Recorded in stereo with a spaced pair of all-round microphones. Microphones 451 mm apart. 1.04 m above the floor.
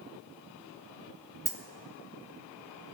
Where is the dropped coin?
45° right (ahead or behind), 1.2 m.